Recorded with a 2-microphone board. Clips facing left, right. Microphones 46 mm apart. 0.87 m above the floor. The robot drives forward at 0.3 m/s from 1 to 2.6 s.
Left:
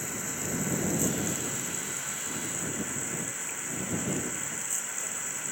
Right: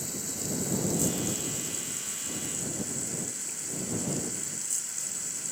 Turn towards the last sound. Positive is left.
turn(degrees=35)  # may be behind; listen again after turning